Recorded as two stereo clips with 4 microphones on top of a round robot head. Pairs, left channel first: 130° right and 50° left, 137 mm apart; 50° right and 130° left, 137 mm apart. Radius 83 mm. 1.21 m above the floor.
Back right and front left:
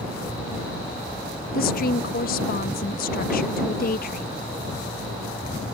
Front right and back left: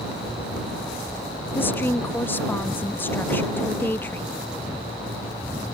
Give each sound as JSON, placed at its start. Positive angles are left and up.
{"t": 1.5, "sound": "a woman speaking", "azimuth_deg": -125}